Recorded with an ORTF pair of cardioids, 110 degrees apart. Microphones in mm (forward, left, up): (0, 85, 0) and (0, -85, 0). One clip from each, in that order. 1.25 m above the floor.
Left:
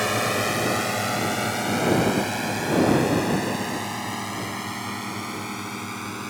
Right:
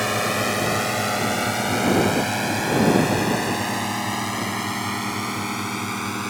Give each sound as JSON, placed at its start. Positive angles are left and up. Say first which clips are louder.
{"t": 0.0, "sound": "a drone", "louder": "right 1 dB", "azimuth_deg": 0}